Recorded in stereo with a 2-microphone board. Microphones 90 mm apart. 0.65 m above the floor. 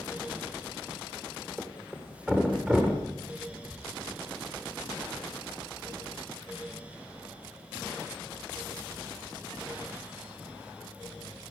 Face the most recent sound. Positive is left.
turn(degrees=-15)  # may be behind; listen again after turning